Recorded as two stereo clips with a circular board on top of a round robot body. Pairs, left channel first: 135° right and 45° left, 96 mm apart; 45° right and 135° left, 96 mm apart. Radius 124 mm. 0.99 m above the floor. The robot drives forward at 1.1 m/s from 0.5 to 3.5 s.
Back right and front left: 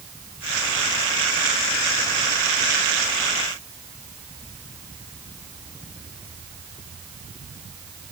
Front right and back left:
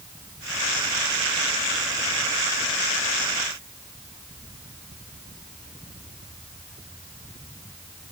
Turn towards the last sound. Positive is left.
No sound to turn to.